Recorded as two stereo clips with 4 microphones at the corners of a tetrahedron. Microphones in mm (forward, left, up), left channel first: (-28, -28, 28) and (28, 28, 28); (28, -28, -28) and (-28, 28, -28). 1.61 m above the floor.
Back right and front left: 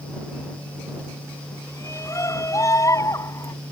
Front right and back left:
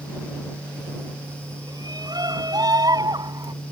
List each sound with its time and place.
1.7 s a shout: 170° left; by 3.5 s 175° left